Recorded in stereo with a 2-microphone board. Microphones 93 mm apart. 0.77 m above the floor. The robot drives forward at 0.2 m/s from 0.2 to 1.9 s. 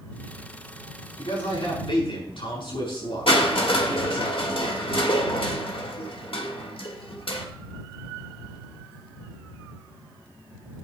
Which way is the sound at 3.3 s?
70° left (ahead or behind).